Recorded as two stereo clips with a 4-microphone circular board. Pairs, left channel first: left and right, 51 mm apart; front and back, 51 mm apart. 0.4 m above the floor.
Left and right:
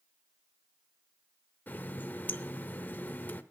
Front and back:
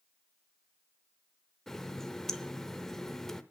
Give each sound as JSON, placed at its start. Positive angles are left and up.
{"t": 1.7, "sound": "a running tap", "azimuth_deg": 75, "distance_m": 0.7}